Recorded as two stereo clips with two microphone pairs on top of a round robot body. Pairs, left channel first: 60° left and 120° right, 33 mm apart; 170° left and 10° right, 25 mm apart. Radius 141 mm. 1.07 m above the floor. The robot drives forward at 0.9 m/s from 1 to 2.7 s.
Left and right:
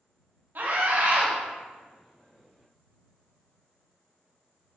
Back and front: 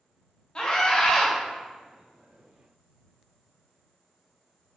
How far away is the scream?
About 2.5 m.